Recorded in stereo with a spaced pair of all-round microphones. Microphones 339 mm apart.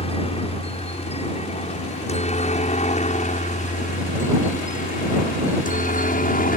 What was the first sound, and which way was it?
A helicopter, 15° left (ahead or behind).